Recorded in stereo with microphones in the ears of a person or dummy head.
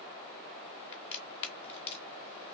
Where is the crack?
40° left (ahead or behind), 0.8 m.